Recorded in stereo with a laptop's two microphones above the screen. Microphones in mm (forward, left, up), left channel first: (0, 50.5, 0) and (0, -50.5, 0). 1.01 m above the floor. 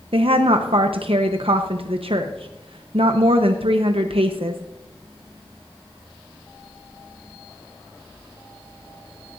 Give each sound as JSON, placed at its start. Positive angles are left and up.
{"t": 0.1, "sound": "a woman speaking", "side_deg": -70, "distance_m": 0.8}